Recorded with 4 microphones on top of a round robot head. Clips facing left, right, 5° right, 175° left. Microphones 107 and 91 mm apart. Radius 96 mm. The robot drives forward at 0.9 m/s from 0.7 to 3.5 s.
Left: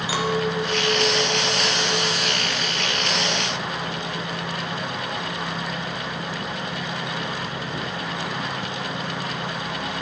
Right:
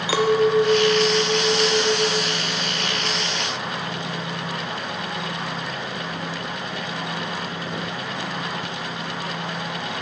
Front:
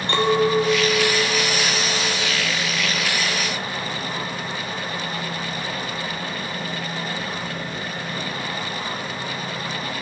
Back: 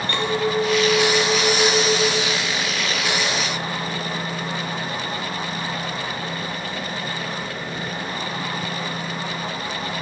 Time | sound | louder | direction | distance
0.1 | a clink | right 7 dB, front 5 dB | 80° right | 0.9 m